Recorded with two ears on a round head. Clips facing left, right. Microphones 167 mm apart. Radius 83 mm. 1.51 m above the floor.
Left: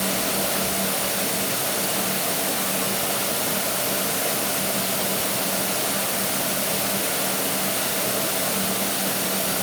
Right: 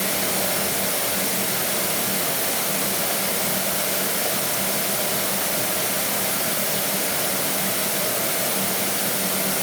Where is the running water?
20° right (ahead or behind), 6 m.